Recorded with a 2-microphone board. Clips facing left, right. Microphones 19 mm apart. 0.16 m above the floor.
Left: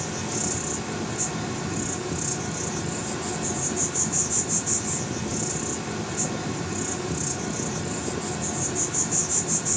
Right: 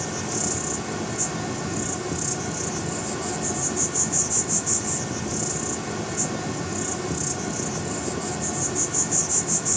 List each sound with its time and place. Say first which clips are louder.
0.0 s an insect: right 1 dB; 20° right (ahead or behind), 1.0 m